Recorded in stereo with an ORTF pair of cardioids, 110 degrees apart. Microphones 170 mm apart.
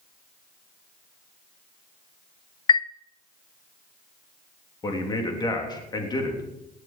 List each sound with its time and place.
2.7 s a chime: 30° left, 0.6 m
4.8 s a man speaking: 25° left, 3.5 m